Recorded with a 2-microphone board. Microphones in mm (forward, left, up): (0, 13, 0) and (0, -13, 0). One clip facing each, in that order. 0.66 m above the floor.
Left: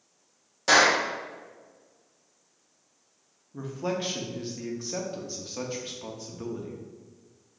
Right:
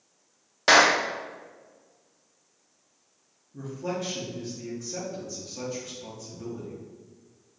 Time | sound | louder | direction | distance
0.7 | a clap | right 2 dB | 40° right (ahead or behind) | 0.7 m
3.5 | a man speaking | left 1 dB | 45° left (ahead or behind) | 0.8 m